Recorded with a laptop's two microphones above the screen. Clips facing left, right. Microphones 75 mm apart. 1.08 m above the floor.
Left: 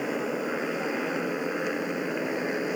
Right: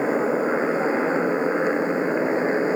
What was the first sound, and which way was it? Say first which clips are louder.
A motorcycle: right 8 dB; 35° right (ahead or behind).